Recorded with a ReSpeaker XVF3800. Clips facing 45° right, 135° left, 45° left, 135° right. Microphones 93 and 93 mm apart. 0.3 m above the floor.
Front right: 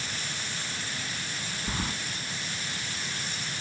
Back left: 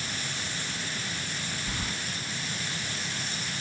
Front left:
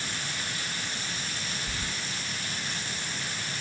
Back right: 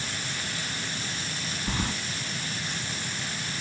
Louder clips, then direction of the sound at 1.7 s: Front right 5 dB, back right 6 dB; 110° right.